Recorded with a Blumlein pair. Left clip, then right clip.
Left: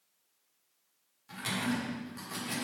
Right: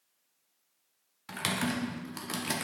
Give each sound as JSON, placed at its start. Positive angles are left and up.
{"t": 1.3, "sound": "typing on a keyboard", "azimuth_deg": -35, "distance_m": 1.6}